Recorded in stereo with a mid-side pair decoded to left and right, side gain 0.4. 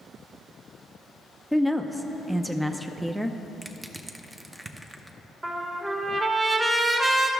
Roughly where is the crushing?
Ahead.